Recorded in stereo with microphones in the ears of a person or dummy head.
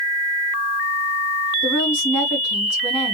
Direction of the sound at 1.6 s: Centre (ahead or behind).